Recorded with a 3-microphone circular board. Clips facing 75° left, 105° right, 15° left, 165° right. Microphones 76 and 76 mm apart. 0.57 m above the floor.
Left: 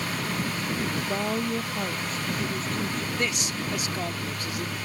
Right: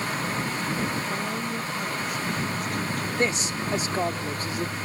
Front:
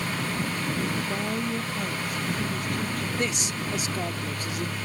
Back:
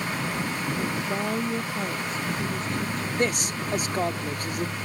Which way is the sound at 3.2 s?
150° right.